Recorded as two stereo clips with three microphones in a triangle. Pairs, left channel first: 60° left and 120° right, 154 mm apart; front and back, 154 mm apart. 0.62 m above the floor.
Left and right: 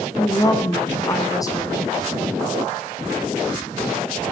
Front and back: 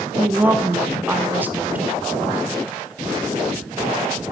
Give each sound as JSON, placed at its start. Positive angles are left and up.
{"t": 0.2, "sound": "a woman speaking", "azimuth_deg": 110, "distance_m": 0.6}